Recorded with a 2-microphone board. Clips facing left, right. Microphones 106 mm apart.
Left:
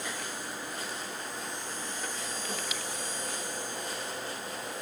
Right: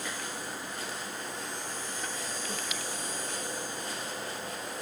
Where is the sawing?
I don't hear sawing.